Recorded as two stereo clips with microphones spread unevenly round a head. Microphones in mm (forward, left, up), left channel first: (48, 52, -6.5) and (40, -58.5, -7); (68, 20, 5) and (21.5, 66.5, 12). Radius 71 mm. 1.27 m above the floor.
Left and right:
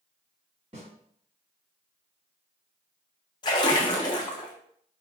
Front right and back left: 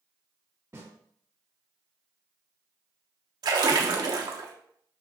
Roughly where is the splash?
Behind left.